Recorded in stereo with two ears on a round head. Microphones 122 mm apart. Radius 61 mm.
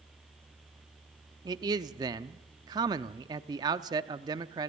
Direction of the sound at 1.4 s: 30° right (ahead or behind).